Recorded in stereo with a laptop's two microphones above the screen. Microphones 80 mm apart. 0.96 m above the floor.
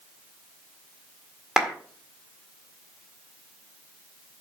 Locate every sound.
1.6 s a clap: 5° right (ahead or behind), 1.8 m